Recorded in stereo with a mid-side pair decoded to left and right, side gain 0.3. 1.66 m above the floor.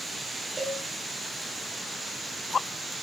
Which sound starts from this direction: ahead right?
A cowbell, at 0.6 s.